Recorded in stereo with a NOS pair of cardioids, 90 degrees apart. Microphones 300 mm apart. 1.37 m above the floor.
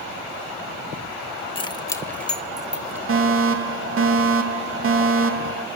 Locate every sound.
1.6 s keys jangling: 20° left, 1.6 m; by 3.0 s 5° right, 2 m
3.1 s a fire alarm: 50° right, 3 m